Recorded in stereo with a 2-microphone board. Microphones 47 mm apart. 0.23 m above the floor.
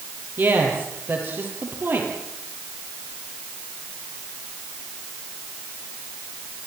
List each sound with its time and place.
0.4 s a woman speaking: 50° right (ahead or behind), 6.5 m